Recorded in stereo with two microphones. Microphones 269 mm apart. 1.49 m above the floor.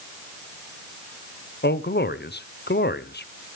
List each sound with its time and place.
1.6 s a man speaking: 40° left (ahead or behind), 0.7 m